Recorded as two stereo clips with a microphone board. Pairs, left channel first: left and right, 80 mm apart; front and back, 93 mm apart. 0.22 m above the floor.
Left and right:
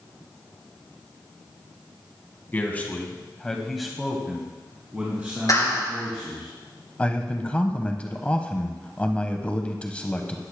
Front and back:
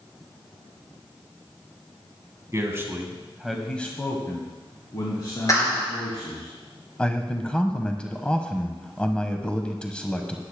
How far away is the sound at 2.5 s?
About 1.9 m.